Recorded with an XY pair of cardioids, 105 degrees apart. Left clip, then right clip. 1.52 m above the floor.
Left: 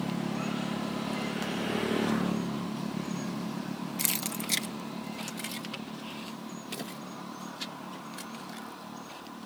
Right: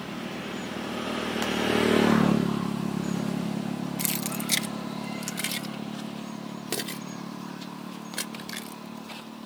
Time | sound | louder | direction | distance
4.0 | keys jangling | even | 10° left | ?